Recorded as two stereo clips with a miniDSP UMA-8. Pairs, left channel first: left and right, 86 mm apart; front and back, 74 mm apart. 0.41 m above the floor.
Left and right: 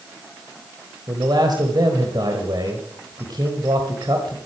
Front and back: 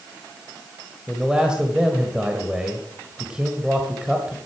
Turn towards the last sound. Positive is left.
turn(degrees=-100)